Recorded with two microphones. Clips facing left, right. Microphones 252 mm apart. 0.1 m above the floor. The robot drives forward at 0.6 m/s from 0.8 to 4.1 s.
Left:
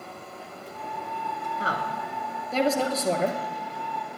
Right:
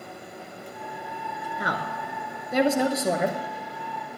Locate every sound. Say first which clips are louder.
1.6 s a woman speaking: right 1 dB; 15° right (ahead or behind), 1.3 m; by 3.4 s 10° right (ahead or behind), 1.9 m